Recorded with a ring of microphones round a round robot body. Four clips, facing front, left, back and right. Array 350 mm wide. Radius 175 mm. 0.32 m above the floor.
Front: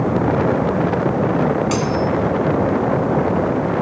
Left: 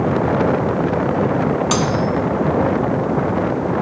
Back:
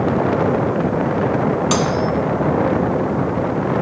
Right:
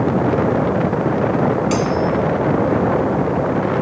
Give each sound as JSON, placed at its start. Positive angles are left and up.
{"t": 1.7, "sound": "cutlery clinking", "azimuth_deg": 135, "distance_m": 2.0}